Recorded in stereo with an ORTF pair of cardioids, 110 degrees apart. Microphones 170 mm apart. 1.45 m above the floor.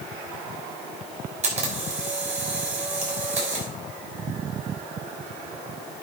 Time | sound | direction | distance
1.4 | a camera shutter | 45° right | 5.5 m